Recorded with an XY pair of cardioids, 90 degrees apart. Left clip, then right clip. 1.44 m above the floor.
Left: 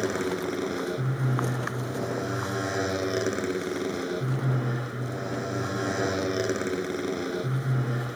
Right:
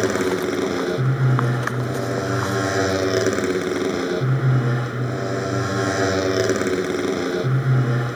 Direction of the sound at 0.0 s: 50° right.